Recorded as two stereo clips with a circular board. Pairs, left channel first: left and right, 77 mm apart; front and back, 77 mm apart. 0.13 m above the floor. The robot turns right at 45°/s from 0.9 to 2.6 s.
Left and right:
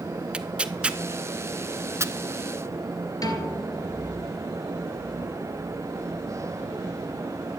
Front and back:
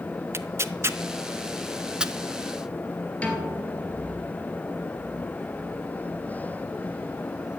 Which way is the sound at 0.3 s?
155° right.